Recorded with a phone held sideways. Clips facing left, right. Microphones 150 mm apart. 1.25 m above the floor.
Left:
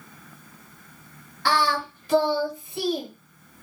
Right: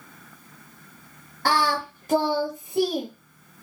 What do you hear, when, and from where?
1.4 s singing: 45° right (ahead or behind), 0.7 m